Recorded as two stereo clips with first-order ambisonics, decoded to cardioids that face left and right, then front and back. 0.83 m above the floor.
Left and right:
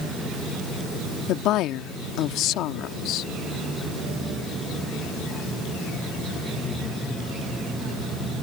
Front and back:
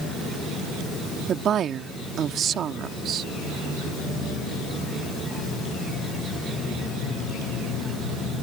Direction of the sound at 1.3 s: 125° left.